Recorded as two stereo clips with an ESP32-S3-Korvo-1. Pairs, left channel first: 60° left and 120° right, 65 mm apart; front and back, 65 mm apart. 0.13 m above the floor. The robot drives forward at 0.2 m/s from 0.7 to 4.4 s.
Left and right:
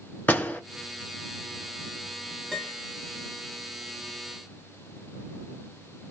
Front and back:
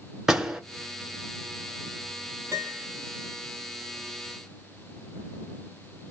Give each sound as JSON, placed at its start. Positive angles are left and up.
{"t": 0.3, "sound": "a door slam", "azimuth_deg": 105, "distance_m": 1.1}
{"t": 2.5, "sound": "a piano", "azimuth_deg": 155, "distance_m": 1.4}